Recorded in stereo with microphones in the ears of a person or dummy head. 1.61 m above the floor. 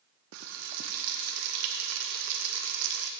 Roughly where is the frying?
Right.